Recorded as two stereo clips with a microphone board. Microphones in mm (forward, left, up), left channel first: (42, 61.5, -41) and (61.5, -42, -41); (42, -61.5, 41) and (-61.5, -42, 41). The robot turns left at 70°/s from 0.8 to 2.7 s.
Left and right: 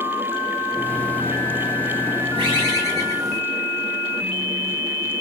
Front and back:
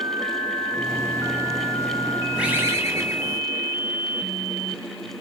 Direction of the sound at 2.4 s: 105° right.